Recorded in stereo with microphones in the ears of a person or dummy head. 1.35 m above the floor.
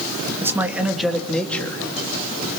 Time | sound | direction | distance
0.4 | a man speaking | 15° right (ahead or behind) | 2.5 m